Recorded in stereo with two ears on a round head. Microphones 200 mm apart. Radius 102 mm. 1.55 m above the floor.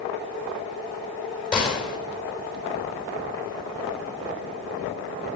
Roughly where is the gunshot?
Centre.